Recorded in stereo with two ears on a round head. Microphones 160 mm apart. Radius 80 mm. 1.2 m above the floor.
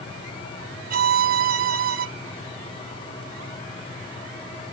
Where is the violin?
50° right (ahead or behind), 0.8 m.